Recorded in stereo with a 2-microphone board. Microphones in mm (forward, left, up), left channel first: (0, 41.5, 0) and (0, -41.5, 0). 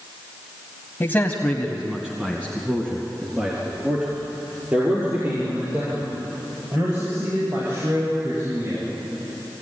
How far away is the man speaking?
About 1.6 m.